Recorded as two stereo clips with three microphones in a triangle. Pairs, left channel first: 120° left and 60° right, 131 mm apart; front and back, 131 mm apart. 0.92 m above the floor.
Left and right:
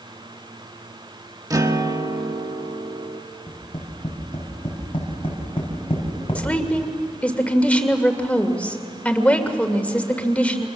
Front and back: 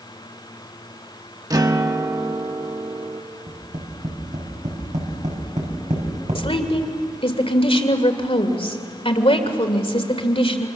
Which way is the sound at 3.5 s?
165° left.